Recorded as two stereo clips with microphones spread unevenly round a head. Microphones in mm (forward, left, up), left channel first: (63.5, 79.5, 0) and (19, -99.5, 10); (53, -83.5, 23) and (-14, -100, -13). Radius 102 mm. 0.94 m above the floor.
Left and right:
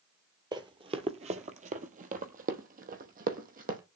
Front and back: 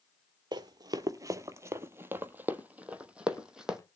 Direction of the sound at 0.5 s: 150° right.